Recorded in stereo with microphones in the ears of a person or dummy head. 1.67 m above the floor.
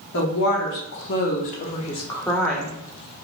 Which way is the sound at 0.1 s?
60° left (ahead or behind).